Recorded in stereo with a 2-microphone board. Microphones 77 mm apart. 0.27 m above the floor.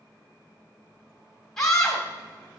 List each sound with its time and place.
1.6 s a scream: 5° left (ahead or behind), 1.5 m